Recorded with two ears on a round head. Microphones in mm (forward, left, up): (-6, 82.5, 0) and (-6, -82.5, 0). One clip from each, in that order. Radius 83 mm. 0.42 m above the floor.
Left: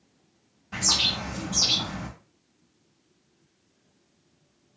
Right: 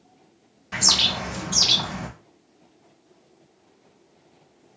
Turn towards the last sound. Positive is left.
turn(degrees=-45)  # may be behind; listen again after turning